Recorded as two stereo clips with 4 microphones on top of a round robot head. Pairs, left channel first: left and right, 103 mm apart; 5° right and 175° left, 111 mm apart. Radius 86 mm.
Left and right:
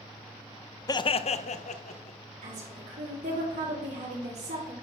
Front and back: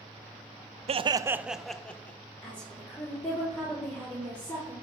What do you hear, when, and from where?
0.9 s laughter: 145° left, 0.7 m; by 2.2 s 70° left, 1.7 m
2.4 s a woman speaking: 85° right, 5.5 m